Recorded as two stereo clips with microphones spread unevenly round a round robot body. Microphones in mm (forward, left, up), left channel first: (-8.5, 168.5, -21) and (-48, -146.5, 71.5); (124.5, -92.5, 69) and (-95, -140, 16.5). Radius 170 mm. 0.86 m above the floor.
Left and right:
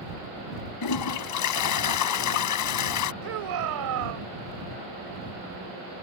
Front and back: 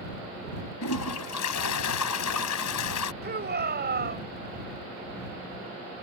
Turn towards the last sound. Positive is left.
turn(degrees=-125)